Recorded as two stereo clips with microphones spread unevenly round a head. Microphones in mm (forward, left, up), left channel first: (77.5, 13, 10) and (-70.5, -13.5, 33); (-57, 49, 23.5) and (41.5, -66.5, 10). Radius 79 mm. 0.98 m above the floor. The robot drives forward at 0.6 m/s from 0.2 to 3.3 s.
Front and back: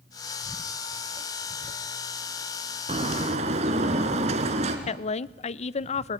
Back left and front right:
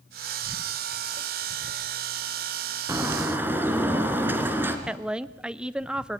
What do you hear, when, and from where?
2.9 s a bird: 120° right, 2 m; by 4.8 s 130° right, 2.5 m
4.9 s a woman speaking: 30° left, 0.6 m